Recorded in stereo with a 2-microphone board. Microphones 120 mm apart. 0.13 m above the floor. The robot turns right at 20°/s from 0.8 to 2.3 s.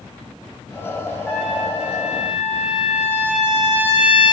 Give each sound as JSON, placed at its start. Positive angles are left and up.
{"t": 1.3, "sound": "a trumpet", "side_deg": 10, "distance_m": 2.0}